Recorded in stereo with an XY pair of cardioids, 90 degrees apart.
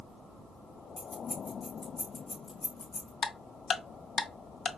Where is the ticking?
55° left, 0.5 m.